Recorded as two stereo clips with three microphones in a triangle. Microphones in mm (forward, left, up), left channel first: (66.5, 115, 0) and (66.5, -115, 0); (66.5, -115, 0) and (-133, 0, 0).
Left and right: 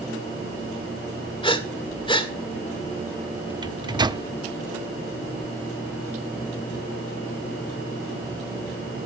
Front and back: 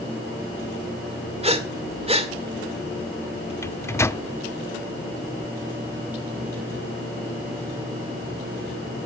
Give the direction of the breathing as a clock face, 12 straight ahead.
8 o'clock.